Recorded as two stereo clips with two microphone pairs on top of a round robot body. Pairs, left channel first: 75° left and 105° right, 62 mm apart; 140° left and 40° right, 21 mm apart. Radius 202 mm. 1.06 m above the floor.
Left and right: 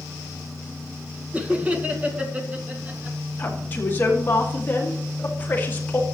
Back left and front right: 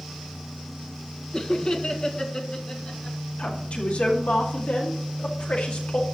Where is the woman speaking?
135° left, 2 m.